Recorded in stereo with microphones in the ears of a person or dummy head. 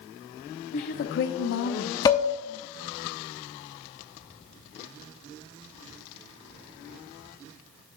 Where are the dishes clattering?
20° left (ahead or behind), 1.0 m.